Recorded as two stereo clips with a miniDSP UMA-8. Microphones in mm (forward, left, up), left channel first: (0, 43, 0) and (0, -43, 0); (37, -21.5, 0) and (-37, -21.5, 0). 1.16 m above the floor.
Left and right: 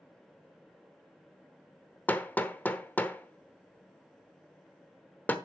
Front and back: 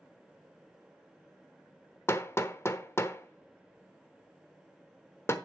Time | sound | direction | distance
2.1 | hammering | 30° left | 1.0 m